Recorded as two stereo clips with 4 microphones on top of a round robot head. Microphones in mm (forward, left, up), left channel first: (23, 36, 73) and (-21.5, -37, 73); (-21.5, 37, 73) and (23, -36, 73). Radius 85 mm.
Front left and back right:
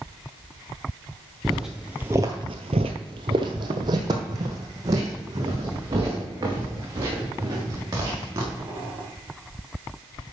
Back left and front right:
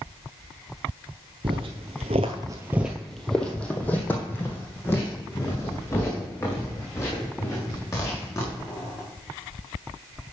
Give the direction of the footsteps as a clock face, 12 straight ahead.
1 o'clock.